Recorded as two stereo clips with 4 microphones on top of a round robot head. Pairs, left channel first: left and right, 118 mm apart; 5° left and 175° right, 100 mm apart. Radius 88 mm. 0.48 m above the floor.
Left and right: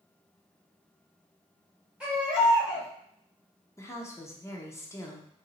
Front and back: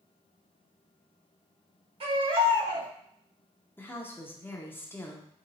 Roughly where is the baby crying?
Behind.